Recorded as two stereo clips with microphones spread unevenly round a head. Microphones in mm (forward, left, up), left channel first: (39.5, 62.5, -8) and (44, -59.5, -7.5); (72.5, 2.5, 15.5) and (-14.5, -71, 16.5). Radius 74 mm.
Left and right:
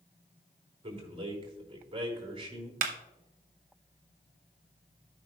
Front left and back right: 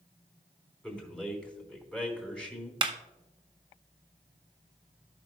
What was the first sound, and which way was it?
A man speaking, 40° right.